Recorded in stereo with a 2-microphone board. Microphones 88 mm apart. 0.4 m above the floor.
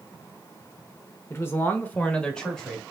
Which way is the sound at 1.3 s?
30° left (ahead or behind).